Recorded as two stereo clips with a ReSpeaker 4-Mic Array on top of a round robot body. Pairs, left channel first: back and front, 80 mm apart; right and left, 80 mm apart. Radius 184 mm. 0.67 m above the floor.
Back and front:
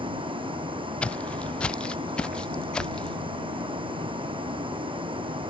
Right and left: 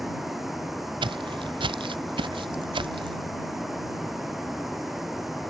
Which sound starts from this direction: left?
Footsteps, at 1.0 s.